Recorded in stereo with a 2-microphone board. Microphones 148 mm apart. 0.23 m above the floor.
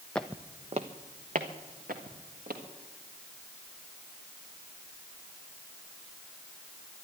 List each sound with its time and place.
0.1 s footsteps: 5° left (ahead or behind), 0.6 m; by 2.6 s 75° right (ahead or behind), 3 m